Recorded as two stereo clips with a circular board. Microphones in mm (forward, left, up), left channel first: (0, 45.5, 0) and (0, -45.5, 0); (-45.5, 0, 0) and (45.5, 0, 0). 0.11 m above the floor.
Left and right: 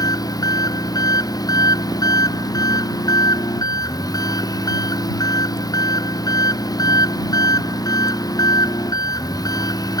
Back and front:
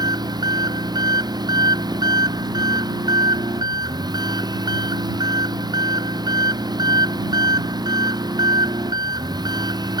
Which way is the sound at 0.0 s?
45° left.